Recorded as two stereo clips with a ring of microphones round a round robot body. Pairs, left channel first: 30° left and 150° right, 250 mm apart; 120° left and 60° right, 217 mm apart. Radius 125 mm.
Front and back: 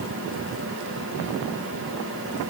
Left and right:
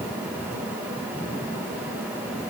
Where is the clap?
No clap in this recording.